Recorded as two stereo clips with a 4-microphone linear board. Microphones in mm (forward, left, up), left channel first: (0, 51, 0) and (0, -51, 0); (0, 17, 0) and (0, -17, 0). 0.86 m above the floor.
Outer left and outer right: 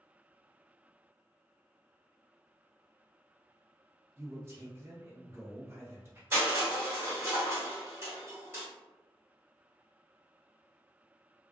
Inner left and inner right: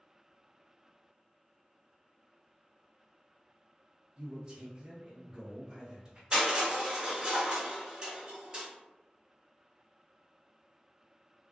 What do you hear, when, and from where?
4.2 s a man speaking: 25° right (ahead or behind), 0.9 m
6.3 s crushing: 25° right (ahead or behind), 1.5 m